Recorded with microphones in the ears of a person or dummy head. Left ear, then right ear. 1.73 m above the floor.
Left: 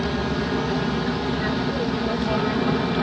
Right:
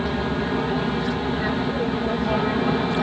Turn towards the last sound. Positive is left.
turn(degrees=-10)  # may be behind; listen again after turning